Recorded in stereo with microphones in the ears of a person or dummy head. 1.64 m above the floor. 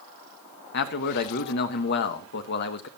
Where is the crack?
I don't hear a crack.